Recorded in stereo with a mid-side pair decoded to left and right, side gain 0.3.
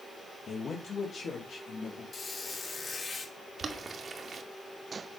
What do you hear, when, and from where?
0.5 s a man speaking: 70° left, 1.7 m
2.1 s a squeak: 60° left, 4 m
3.6 s boiling: 65° right, 2 m